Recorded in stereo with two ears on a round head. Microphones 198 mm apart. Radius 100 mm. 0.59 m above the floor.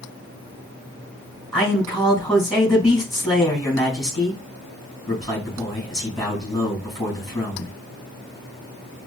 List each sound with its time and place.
1.5 s a man speaking: centre (ahead or behind), 4 m